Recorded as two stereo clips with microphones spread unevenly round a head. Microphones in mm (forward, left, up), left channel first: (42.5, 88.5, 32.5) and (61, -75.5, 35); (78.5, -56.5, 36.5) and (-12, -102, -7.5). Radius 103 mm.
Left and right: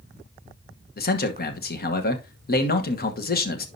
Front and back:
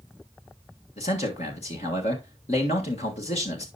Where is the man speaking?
85° left, 1.2 m.